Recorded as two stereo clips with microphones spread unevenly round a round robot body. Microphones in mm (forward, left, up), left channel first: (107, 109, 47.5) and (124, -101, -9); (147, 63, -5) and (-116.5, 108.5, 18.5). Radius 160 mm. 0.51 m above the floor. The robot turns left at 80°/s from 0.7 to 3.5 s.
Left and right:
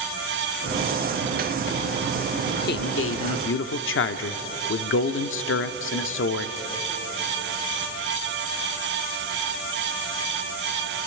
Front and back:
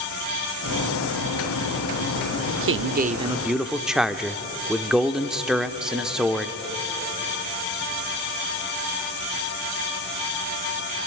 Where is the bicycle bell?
No bicycle bell in this recording.